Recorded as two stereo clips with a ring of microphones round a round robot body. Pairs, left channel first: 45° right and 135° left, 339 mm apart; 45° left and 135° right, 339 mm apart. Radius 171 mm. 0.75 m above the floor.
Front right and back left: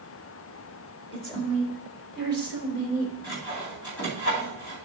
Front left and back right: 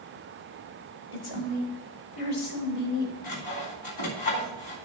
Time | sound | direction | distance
1.1 | a woman speaking | 30° left | 3.5 m
3.2 | sawing | 15° left | 3 m